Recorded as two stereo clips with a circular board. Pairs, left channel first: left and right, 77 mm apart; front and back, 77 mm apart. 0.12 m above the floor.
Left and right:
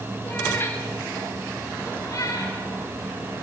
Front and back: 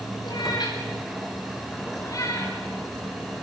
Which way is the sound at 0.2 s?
25° left.